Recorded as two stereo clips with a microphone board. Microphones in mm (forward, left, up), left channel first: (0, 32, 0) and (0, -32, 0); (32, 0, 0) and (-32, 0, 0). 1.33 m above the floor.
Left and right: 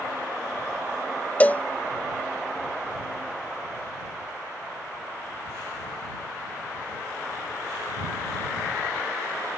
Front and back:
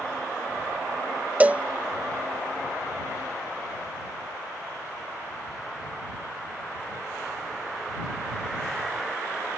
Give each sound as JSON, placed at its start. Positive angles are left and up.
{"t": 1.4, "sound": "a cowbell", "azimuth_deg": 130}